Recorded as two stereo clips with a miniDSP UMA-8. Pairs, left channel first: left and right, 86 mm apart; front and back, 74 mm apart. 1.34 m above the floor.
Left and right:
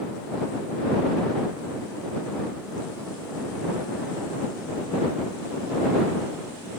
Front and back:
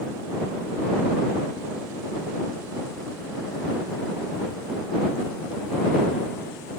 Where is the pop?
No pop in this recording.